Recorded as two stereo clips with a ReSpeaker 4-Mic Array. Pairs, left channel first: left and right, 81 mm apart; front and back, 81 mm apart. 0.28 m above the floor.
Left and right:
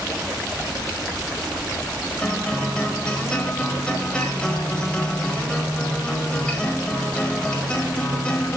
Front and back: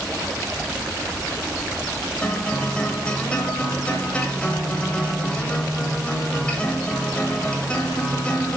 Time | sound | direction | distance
2.2 | a guitar | 40° left | 1.2 m